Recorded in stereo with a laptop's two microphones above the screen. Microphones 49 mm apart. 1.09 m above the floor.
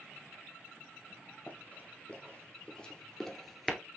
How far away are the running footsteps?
About 1.6 m.